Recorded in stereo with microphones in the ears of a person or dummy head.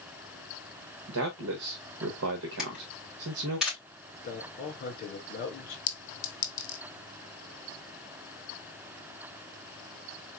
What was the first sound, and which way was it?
A man speaking, 80° right.